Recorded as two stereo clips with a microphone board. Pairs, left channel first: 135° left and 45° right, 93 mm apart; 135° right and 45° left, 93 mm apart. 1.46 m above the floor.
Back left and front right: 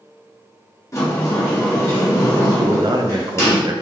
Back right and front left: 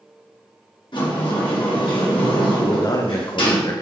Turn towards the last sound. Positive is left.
turn(degrees=-85)